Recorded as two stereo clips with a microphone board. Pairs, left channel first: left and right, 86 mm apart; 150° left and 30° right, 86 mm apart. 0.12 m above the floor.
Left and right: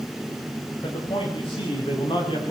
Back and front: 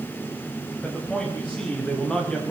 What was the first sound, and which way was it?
A man speaking, 70° left.